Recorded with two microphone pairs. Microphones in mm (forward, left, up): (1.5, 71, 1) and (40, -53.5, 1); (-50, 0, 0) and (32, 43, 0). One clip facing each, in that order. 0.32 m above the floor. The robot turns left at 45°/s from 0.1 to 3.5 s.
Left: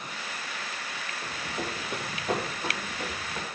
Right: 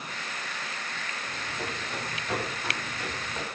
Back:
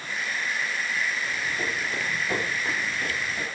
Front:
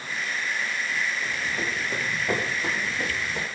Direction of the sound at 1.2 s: 95° left.